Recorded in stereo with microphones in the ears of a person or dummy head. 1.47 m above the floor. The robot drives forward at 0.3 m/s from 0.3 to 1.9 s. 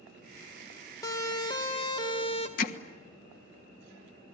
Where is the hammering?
55° left (ahead or behind), 1.4 m.